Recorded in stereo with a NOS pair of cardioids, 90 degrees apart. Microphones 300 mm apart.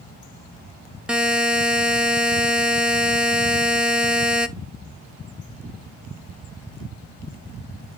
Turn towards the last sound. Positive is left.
turn(degrees=-5)